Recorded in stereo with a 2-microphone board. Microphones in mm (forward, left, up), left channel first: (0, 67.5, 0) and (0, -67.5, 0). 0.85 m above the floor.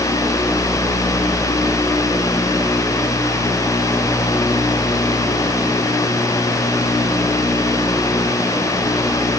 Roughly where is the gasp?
No gasp in this recording.